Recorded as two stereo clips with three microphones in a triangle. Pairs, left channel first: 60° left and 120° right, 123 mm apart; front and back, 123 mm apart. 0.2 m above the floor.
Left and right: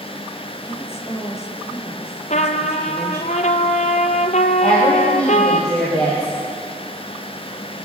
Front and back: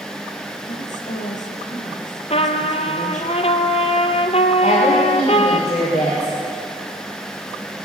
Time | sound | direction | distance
0.7 | a woman speaking | 10° right | 4 m
2.3 | a trumpet | 35° left | 1.1 m
4.6 | a woman speaking | 25° right | 9 m